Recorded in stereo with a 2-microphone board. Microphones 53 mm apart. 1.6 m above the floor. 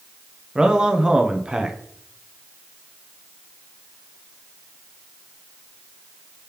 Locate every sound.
0.6 s a man speaking: 15° right (ahead or behind), 0.6 m